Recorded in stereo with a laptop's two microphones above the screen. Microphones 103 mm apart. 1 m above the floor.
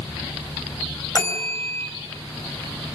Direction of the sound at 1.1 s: 30° left (ahead or behind).